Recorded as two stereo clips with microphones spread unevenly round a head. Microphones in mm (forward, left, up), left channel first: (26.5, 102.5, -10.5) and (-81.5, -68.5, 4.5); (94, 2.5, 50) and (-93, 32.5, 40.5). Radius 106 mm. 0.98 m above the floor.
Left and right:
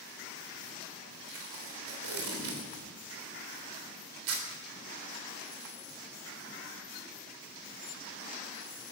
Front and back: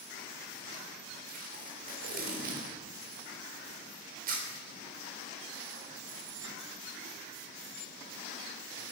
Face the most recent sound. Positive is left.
turn(degrees=-140)